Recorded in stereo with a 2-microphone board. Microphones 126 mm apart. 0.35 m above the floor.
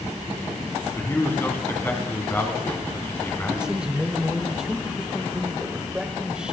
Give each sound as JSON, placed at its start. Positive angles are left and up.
{"t": 1.0, "sound": "a man speaking", "side_deg": 20, "distance_m": 2.5}
{"t": 3.5, "sound": "a man speaking", "side_deg": -5, "distance_m": 1.1}